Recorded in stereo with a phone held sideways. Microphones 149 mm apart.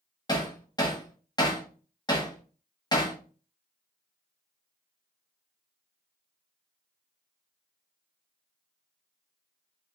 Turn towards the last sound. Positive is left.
turn(degrees=25)  # may be behind; listen again after turning